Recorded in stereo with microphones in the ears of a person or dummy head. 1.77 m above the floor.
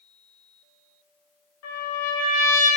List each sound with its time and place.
1.6 s a trumpet: 75° left (ahead or behind), 2.5 m